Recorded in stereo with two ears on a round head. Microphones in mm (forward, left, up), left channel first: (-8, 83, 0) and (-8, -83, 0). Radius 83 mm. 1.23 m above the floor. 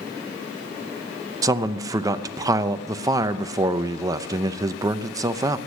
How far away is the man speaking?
About 0.7 m.